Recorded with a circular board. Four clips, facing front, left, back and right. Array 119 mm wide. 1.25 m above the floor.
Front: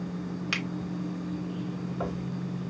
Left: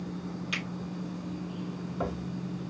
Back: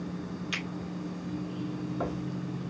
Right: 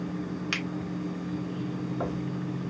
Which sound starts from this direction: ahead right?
A finger snap, at 0.5 s.